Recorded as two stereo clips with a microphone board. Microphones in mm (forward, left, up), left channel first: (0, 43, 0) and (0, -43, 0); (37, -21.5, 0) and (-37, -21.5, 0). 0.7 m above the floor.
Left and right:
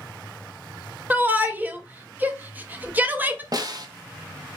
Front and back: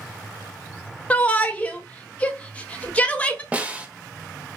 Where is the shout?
50° right, 0.5 m.